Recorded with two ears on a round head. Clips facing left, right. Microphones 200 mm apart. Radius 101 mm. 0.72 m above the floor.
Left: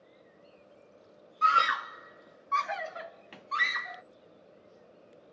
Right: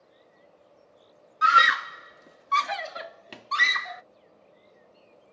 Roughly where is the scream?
Centre.